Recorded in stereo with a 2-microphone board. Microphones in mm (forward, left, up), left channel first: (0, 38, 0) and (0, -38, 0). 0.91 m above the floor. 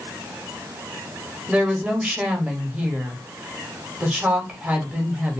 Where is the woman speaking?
20° right (ahead or behind), 1.0 m.